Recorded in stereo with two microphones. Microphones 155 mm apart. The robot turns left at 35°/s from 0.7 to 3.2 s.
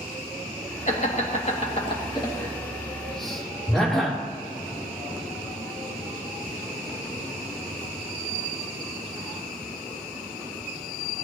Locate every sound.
0.9 s laughter: 55° left (ahead or behind), 2.5 m; by 4.2 s centre (ahead or behind), 2.5 m
3.7 s a whoosh: 25° left (ahead or behind), 5 m